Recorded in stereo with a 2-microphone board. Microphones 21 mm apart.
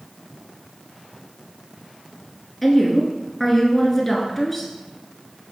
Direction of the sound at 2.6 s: 10° left (ahead or behind).